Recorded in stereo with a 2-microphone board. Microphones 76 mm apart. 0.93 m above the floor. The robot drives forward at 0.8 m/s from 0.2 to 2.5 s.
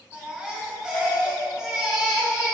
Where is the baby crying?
15° right (ahead or behind), 3.5 m; by 2.5 s 10° right (ahead or behind), 5.5 m.